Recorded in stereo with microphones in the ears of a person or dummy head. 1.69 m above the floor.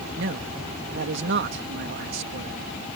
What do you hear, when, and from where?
0.2 s a man speaking: 60° right (ahead or behind)